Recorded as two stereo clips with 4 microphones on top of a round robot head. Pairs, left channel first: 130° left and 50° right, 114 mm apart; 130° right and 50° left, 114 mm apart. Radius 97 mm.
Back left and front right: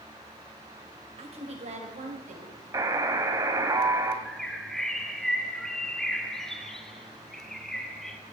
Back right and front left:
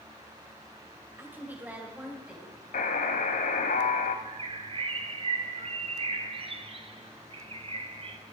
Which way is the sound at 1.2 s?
20° right.